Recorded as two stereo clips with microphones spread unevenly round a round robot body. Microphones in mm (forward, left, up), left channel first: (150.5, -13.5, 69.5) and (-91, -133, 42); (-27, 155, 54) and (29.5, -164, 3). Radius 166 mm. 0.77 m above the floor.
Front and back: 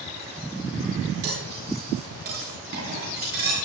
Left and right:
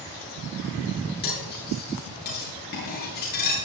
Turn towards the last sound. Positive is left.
turn(degrees=160)